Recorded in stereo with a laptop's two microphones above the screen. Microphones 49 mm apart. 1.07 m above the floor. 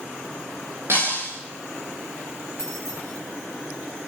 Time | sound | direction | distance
0.9 | breaking glass | 55° right (ahead or behind) | 9 m
2.6 | keys jangling | 60° right (ahead or behind) | 10 m